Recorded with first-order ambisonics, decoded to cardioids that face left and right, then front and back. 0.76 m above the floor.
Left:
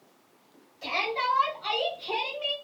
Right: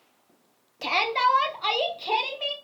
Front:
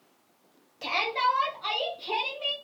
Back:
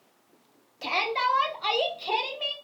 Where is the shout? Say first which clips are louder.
Right 5 dB, even; 90° right, 0.6 m; by 2.5 s 130° right, 1.3 m.